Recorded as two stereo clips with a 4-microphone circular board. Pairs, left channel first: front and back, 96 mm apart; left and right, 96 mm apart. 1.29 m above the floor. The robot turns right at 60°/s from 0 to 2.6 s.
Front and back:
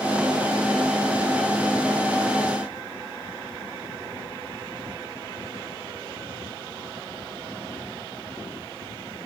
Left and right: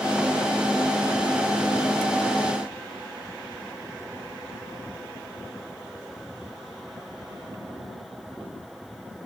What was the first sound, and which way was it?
Only background noise.